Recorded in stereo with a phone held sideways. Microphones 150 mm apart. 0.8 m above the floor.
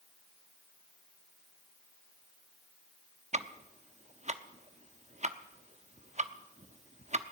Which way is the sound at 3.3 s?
50° right (ahead or behind).